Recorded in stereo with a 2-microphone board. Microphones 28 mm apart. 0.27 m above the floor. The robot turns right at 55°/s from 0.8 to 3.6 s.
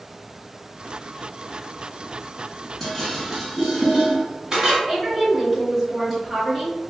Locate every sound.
2.8 s dishes clattering: 10° left (ahead or behind), 1.4 m; by 4.8 s 30° right (ahead or behind), 1.4 m
4.9 s a woman speaking: 5° left (ahead or behind), 1.1 m